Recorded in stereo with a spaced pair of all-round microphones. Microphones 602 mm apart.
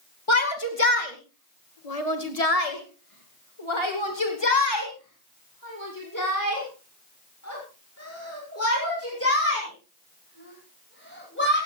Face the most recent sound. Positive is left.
turn(degrees=20)  # may be behind; listen again after turning